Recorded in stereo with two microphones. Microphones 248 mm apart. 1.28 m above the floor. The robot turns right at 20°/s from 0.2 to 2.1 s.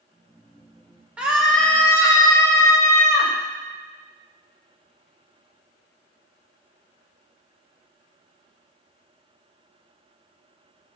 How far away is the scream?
About 1.3 m.